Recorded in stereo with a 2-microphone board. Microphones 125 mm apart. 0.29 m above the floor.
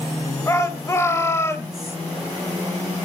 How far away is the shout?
About 1.3 m.